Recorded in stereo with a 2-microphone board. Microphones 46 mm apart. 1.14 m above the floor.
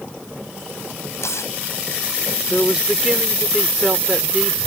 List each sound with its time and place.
1.1 s tearing paper: 85° left
2.5 s a man speaking: 10° right (ahead or behind)